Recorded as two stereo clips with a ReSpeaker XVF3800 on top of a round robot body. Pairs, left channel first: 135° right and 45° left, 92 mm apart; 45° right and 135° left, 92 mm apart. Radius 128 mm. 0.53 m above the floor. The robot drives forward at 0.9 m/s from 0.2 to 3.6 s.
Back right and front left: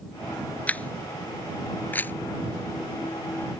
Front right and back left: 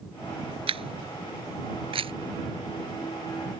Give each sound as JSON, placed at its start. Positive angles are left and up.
{"t": 0.7, "sound": "a camera shutter", "azimuth_deg": 150}